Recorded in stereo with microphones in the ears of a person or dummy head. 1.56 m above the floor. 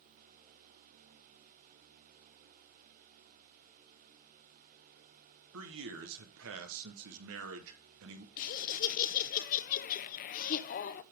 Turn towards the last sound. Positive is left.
turn(degrees=45)  # may be behind; listen again after turning